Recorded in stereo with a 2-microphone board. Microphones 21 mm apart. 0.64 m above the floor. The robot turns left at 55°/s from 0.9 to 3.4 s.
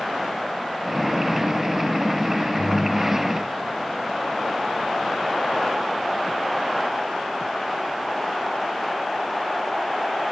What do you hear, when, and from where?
2.6 s a ringtone: 115° left, 1.1 m; by 3.5 s 70° left, 1.1 m